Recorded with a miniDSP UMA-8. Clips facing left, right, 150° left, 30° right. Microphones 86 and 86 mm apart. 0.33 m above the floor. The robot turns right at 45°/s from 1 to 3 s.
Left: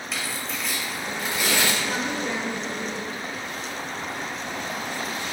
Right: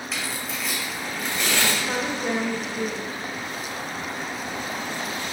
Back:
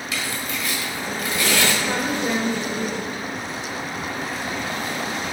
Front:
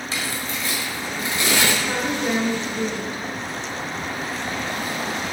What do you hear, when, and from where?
0.1 s tearing paper: straight ahead, 1.7 m; by 1.7 s 30° left, 1.7 m
1.8 s a woman speaking: 140° right, 1.0 m; by 3.2 s 85° right, 1.0 m